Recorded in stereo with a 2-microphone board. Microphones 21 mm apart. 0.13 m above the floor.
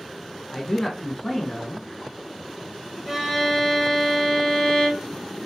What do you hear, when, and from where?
0.5 s a man speaking: 20° left (ahead or behind), 1.3 m
3.1 s a violin: centre (ahead or behind), 1.6 m